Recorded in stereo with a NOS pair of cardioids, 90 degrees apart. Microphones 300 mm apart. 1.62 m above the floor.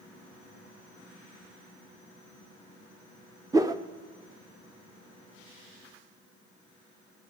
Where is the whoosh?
10° right, 0.6 m.